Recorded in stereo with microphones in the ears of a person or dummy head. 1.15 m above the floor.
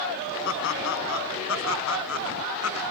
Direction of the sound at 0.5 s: 70° left (ahead or behind).